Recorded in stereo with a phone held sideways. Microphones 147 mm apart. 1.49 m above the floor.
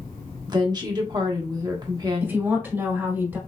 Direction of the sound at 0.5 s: 30° right (ahead or behind).